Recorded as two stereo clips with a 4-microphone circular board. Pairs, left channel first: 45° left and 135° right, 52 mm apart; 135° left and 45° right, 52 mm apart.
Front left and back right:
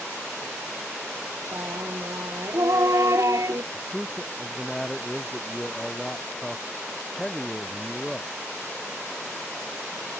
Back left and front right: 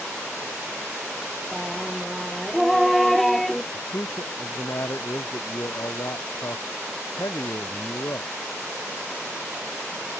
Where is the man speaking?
130° left.